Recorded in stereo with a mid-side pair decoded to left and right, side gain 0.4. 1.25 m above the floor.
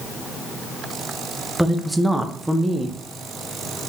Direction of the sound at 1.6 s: 10° right.